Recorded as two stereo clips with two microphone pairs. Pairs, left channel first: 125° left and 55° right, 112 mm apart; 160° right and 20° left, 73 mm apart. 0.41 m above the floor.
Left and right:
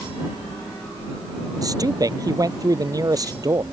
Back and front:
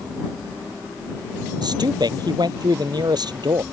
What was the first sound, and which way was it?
A man speaking, straight ahead.